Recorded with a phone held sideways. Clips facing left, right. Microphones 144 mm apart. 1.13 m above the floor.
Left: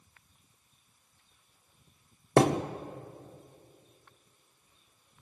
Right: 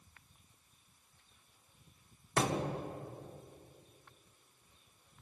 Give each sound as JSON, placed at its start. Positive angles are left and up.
{"t": 2.4, "sound": "a thud", "side_deg": 65, "distance_m": 1.2}